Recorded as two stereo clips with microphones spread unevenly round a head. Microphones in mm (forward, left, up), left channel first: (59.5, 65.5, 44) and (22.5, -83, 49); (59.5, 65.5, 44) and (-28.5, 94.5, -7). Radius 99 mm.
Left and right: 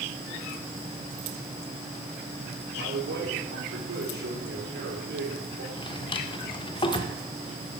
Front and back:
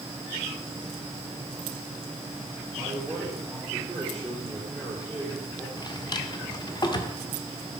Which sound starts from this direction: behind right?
A man speaking, at 2.8 s.